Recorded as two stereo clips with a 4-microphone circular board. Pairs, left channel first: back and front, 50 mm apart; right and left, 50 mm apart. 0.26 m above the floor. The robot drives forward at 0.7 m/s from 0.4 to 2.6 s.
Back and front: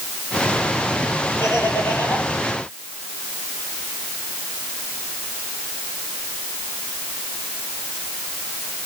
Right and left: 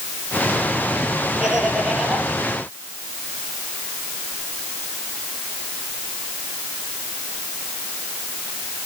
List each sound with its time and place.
1.4 s laughter: 165° left, 6 m